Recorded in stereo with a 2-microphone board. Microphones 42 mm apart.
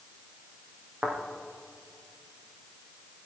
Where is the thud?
55° right (ahead or behind), 4.5 m.